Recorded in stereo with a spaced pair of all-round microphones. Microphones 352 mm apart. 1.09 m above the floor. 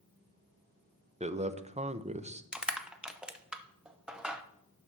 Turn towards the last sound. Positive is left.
turn(degrees=0)  # may be behind; listen again after turning